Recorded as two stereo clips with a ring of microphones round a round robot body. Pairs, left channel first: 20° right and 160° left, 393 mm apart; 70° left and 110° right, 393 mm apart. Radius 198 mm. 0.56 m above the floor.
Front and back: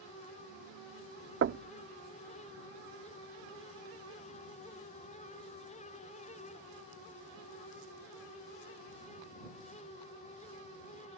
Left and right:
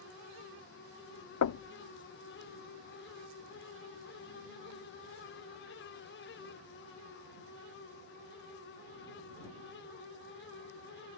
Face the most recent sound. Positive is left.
turn(degrees=105)